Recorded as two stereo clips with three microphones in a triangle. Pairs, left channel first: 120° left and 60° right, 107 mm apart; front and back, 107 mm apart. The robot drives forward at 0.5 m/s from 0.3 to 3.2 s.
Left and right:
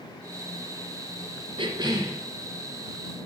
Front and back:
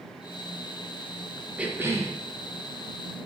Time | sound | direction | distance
1.6 | a cough | 100° right | 0.6 m